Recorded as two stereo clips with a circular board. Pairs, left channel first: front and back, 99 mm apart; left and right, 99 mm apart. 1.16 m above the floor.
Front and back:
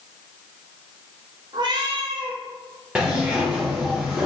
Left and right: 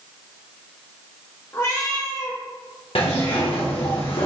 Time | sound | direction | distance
1.5 | a cat meowing | 145° left | 0.8 m
3.0 | a zipper | 100° left | 1.1 m